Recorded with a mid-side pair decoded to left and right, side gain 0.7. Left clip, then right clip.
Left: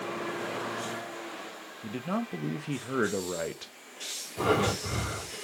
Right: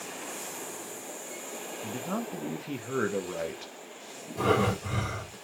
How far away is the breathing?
About 2.5 m.